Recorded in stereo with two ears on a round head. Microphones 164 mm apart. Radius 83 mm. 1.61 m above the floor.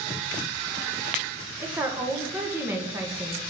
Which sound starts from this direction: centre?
A woman speaking, at 1.6 s.